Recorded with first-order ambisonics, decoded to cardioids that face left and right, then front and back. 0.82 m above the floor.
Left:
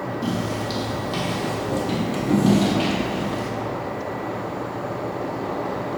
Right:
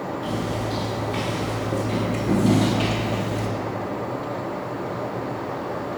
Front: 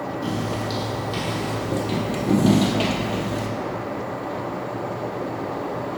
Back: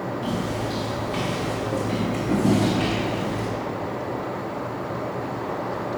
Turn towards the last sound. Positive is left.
turn(degrees=-20)